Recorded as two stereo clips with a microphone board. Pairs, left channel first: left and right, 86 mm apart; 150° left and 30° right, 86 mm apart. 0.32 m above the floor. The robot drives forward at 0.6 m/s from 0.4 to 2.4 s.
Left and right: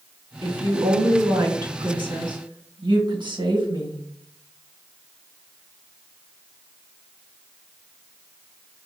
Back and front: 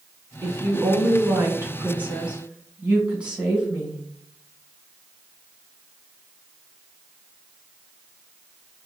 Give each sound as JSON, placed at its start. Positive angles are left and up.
{"t": 0.4, "sound": "a woman speaking", "azimuth_deg": -75, "distance_m": 2.5}